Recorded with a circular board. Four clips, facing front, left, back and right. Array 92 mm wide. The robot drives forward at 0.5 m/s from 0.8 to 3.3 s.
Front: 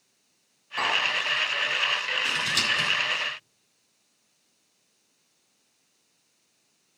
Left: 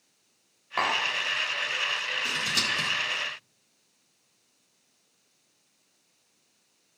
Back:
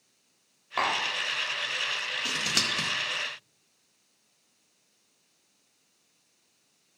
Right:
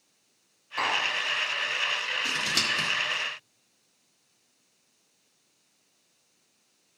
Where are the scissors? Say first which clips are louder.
Right 1 dB, front 2 dB; 165° right, 1.3 m; by 2.9 s 170° right, 1.5 m.